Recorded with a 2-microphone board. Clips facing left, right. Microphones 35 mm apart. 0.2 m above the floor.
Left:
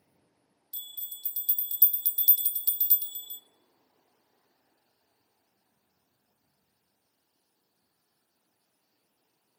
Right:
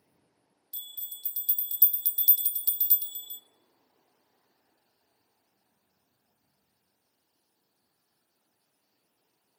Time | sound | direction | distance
0.7 | a bell | 5° left (ahead or behind) | 0.6 m